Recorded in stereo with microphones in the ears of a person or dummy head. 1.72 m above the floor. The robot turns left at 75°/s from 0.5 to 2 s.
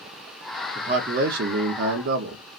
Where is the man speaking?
30° right, 0.6 m; by 2.4 s 125° right, 0.6 m.